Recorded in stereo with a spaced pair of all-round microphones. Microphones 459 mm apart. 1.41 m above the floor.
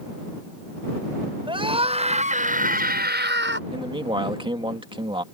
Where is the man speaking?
10° right (ahead or behind).